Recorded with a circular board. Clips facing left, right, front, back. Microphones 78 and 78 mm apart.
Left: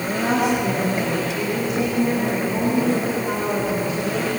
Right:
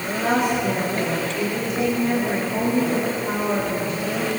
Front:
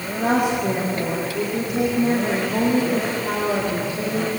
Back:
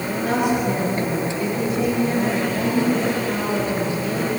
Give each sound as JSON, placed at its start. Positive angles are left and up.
{"t": 0.2, "sound": "a woman speaking", "azimuth_deg": 0, "distance_m": 7.0}